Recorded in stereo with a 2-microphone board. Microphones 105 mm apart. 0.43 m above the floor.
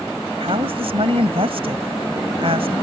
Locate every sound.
0.4 s a woman speaking: 65° right (ahead or behind)